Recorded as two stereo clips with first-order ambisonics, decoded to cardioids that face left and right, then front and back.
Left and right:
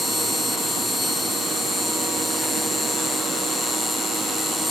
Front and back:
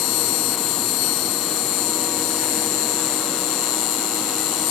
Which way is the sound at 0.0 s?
5° left.